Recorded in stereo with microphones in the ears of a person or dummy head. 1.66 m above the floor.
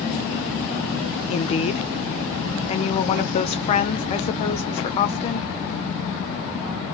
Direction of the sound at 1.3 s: 30° left (ahead or behind).